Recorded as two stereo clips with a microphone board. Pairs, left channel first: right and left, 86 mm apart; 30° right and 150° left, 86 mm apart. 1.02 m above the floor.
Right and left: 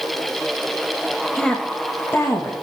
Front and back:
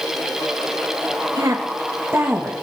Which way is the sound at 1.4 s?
175° right.